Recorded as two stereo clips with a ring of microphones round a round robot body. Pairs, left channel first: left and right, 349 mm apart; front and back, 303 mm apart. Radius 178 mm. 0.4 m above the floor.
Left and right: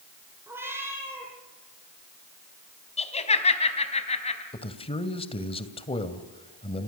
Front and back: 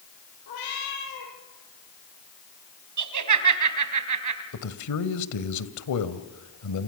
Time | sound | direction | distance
0.5 | a cat meowing | 5° right | 8.5 m
3.0 | laughter | 160° left | 4 m
4.5 | a man speaking | 15° left | 2 m